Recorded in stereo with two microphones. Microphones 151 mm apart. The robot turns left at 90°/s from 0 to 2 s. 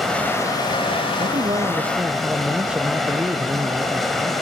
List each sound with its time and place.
0.0 s running water: straight behind, 1.7 m; by 4.4 s straight ahead, 1.7 m
1.2 s a man speaking: 95° right, 0.6 m; by 4.3 s 170° right, 0.6 m